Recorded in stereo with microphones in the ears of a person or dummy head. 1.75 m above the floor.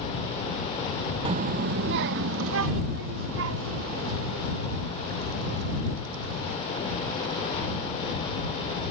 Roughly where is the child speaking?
Right.